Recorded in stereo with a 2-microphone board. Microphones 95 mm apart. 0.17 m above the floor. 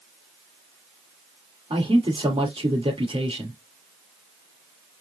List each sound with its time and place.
1.7 s a man speaking: 70° right (ahead or behind), 3 m